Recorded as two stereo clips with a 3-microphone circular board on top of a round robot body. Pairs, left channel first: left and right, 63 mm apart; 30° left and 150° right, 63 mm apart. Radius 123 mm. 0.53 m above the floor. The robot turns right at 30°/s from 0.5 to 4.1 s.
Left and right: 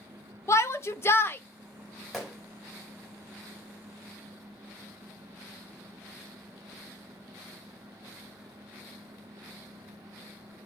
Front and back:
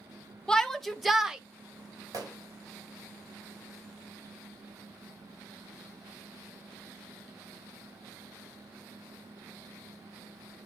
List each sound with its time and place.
0.5 s a shout: 105° left, 1.2 m; by 1.4 s 130° left, 1.2 m
2.1 s a gunshot: 175° left, 4 m; by 2.4 s straight behind, 4 m